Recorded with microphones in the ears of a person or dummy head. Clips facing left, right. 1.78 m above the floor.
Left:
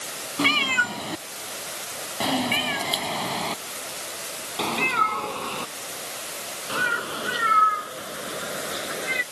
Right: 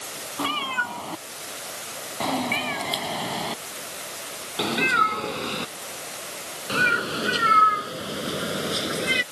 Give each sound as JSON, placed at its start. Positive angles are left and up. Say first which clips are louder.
{"t": 0.4, "sound": "a cat meowing", "louder": "left 4 dB", "side_deg": 30}